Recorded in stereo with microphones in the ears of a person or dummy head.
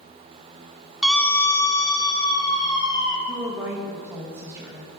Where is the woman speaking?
15° right (ahead or behind), 1.4 m.